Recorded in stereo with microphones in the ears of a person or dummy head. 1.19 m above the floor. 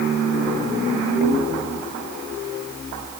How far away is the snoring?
I don't hear snoring.